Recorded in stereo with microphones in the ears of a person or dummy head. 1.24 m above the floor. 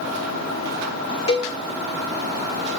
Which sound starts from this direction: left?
A cowbell, at 1.3 s.